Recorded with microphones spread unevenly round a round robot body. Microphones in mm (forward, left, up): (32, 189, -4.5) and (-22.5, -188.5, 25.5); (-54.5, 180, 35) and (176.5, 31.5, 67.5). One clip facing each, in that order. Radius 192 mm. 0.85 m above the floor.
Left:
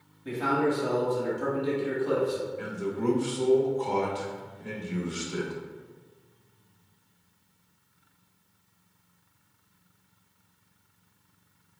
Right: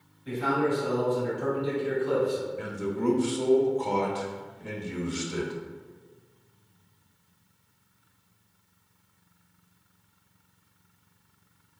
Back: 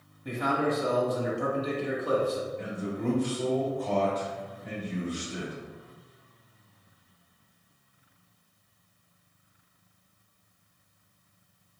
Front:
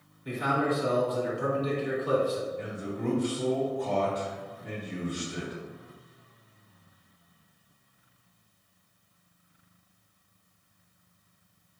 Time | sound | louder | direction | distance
0.2 | a man speaking | even, even | 115° left | 1.7 m
2.6 | a man speaking | right 1 dB, back 1 dB | 115° right | 1.2 m